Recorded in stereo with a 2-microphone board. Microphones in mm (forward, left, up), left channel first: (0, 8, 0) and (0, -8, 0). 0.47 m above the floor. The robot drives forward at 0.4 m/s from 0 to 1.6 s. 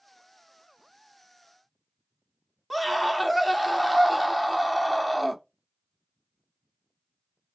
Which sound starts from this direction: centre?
A scream, at 2.7 s.